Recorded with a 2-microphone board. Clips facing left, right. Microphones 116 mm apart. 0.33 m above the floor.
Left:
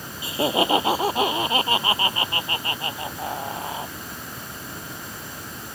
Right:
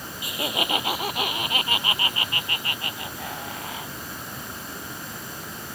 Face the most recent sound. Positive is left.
turn(degrees=30)  # may be behind; listen again after turning